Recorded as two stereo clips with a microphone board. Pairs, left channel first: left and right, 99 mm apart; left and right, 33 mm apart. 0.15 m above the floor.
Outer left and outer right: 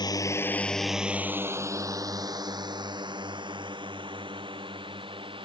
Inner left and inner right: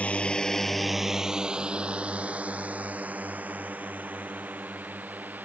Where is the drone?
45° left (ahead or behind); by 5.5 s 60° right (ahead or behind).